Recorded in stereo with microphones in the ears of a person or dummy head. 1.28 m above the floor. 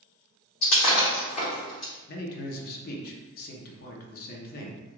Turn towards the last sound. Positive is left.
turn(degrees=50)  # may be behind; listen again after turning